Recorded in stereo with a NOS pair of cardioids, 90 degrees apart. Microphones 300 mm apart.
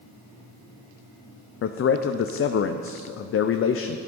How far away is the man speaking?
About 0.7 m.